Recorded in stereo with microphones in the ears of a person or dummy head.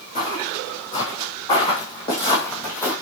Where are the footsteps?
40° left (ahead or behind), 5 m; by 2.9 s 15° left (ahead or behind), 4 m.